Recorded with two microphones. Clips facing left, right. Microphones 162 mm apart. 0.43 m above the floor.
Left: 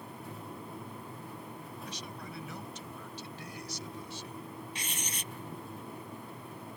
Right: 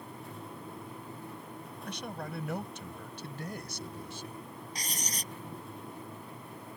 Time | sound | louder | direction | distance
1.9 | a man speaking | right 4 dB | 60° right (ahead or behind) | ?
4.8 | writing | right 1 dB | 40° right (ahead or behind) | ?